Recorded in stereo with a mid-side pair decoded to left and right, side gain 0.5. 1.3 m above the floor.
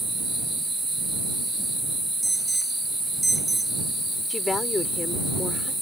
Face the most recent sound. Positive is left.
turn(degrees=25)